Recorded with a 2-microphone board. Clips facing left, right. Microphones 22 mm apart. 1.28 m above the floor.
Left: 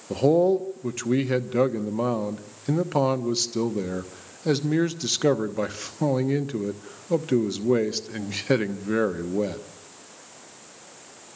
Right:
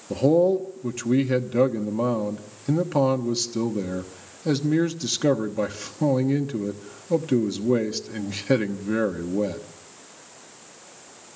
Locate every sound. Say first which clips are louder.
0.1 s a man speaking: right 1 dB; 5° left (ahead or behind), 1.1 m